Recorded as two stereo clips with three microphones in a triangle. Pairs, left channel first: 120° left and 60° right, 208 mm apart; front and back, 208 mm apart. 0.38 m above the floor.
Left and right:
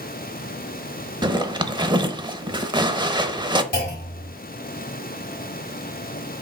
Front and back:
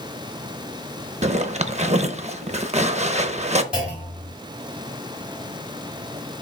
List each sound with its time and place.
1.2 s a zipper: 125° right, 0.5 m
3.7 s a clunk: 95° left, 2.5 m